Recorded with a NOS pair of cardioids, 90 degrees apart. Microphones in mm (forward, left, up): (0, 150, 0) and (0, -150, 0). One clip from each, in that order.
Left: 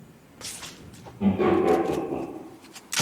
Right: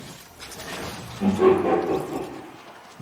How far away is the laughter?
About 0.8 m.